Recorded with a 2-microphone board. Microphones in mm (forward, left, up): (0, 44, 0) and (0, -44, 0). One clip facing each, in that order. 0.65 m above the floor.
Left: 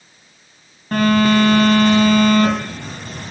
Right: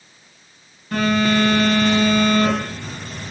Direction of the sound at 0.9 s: 50° left (ahead or behind).